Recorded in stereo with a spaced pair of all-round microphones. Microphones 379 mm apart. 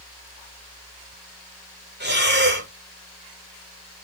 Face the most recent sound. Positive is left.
turn(degrees=-25)  # may be behind; listen again after turning